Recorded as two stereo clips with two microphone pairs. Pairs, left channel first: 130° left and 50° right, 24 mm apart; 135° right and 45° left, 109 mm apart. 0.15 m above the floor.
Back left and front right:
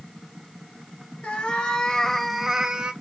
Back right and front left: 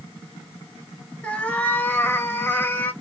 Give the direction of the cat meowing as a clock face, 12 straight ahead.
7 o'clock.